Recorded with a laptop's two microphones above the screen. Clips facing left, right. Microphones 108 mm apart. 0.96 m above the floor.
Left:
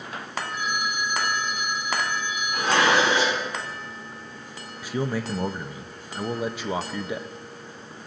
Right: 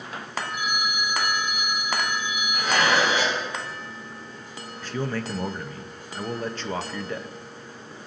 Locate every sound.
0.5 s a phone ringing: 10° right (ahead or behind), 0.7 m
2.5 s dishes clattering: 70° left (ahead or behind), 4 m
4.8 s a man speaking: 10° left (ahead or behind), 0.6 m